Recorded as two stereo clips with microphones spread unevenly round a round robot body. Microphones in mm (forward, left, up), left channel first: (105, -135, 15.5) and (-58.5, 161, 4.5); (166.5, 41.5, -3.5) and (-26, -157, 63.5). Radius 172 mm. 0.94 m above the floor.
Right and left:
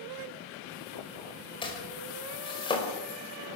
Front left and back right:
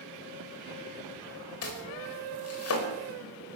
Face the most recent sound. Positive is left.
turn(degrees=15)